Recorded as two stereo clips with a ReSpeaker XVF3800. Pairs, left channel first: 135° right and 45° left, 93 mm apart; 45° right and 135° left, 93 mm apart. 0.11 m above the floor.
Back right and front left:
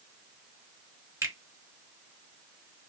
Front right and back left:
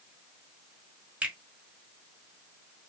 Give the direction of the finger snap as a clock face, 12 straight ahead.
10 o'clock.